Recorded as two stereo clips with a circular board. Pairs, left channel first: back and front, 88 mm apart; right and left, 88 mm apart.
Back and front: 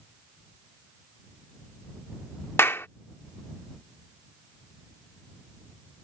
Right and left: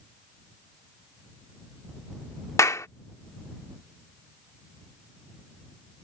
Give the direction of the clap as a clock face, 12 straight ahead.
4 o'clock.